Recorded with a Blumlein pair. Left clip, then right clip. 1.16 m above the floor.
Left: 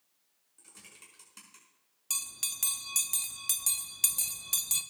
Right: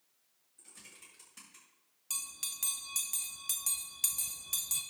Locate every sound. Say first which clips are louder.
0.6 s typing on a keyboard: left 1 dB; 70° left, 5 m
2.1 s a bell: left 4 dB; 15° left, 0.7 m